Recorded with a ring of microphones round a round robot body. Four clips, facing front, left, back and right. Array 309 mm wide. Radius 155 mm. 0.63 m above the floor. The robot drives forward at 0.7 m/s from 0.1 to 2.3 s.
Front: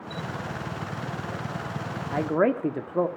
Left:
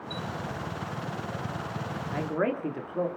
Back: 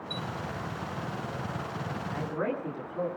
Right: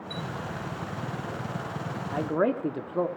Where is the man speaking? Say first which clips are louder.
Right 3 dB, front 10 dB; 15° right, 1.8 m.